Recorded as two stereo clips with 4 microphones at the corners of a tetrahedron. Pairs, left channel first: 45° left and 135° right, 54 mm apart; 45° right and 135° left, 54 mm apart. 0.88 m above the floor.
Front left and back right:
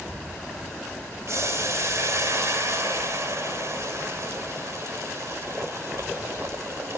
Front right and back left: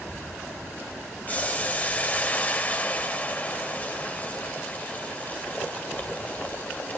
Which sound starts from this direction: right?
Boiling, at 1.3 s.